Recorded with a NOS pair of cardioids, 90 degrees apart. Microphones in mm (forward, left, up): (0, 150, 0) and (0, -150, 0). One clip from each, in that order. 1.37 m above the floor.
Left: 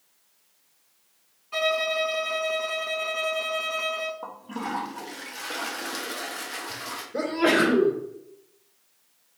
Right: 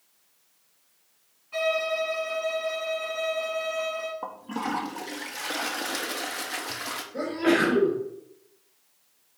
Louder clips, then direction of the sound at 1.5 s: Left 1 dB; 35° left.